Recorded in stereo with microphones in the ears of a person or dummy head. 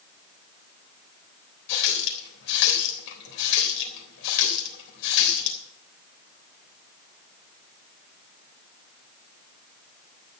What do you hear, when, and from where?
1.7 s a running tap: 65° left (ahead or behind), 3.5 m